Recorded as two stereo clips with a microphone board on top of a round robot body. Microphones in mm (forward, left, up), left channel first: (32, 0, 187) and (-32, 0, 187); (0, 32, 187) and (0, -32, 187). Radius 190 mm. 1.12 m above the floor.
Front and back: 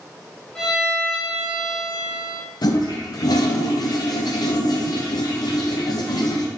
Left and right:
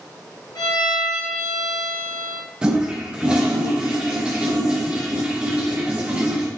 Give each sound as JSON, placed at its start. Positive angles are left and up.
{"t": 0.6, "sound": "a violin", "azimuth_deg": 80, "distance_m": 1.2}
{"t": 2.6, "sound": "a toilet flushing", "azimuth_deg": -15, "distance_m": 0.8}